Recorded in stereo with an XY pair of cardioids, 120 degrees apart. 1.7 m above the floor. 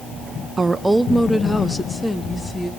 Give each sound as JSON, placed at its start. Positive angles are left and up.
{"t": 0.6, "sound": "a woman speaking", "azimuth_deg": -25, "distance_m": 0.8}